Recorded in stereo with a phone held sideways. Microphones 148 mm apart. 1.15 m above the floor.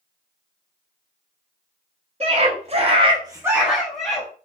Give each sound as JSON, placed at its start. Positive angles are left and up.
{"t": 2.2, "sound": "a scream", "side_deg": -45, "distance_m": 1.2}